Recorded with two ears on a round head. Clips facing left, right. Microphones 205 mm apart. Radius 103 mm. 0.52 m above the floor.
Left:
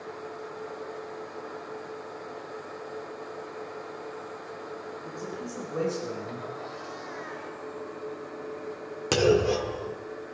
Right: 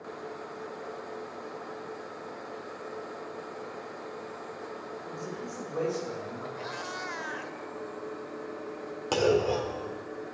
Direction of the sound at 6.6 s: 70° right (ahead or behind).